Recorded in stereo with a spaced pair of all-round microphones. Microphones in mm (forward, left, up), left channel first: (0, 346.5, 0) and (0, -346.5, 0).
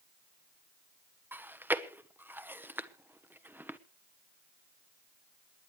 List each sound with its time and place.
1.3 s chewing: 5° right (ahead or behind), 0.9 m